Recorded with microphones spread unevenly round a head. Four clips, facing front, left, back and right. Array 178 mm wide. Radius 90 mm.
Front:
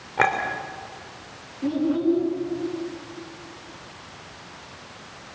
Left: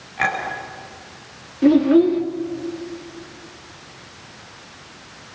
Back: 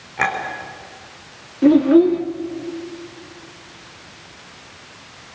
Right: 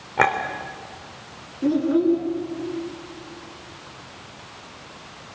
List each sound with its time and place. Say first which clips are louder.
0.2 s a clink: right 3 dB, even; 70° right, 3 m
1.6 s a child speaking: left 6 dB, back 10 dB; 155° left, 2 m